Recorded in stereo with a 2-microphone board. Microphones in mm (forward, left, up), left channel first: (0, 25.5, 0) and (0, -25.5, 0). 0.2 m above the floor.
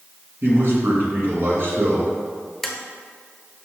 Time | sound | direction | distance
0.4 | a man speaking | 50° right (ahead or behind) | 2 m
2.6 | tapping | centre (ahead or behind) | 0.9 m